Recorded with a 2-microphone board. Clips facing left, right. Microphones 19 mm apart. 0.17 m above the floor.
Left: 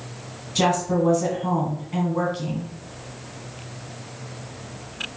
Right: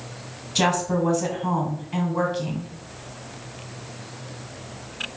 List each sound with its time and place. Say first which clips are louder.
0.6 s a woman speaking: left 1 dB; 5° right (ahead or behind), 1.7 m